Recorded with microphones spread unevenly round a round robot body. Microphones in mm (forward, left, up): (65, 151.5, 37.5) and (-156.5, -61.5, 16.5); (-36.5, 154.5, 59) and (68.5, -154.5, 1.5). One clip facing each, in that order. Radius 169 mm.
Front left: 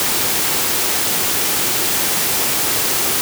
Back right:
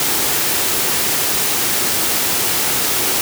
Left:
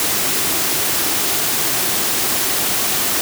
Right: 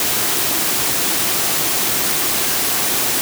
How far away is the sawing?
No sawing in this recording.